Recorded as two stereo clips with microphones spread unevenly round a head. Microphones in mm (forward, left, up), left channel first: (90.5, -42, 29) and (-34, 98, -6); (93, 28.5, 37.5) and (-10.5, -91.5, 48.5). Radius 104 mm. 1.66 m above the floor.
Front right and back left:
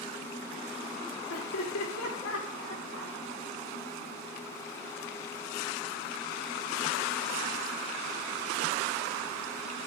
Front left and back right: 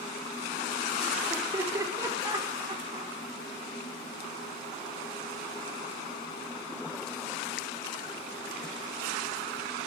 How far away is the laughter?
About 4.5 m.